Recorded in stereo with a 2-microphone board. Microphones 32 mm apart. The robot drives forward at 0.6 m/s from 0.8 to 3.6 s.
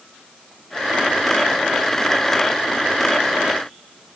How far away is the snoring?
I don't hear snoring.